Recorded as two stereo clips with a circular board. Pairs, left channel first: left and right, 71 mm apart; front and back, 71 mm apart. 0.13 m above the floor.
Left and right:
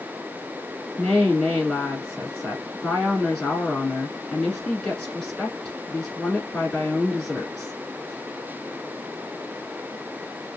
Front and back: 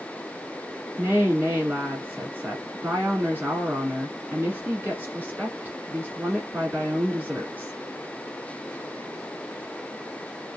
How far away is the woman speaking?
About 1.4 m.